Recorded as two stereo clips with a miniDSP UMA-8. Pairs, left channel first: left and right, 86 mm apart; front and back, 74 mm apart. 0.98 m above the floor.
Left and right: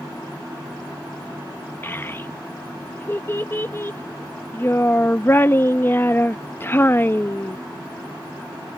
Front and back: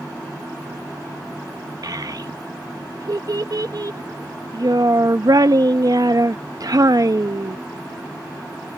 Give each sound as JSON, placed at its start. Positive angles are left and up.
{"t": 1.8, "sound": "a child speaking", "azimuth_deg": 155}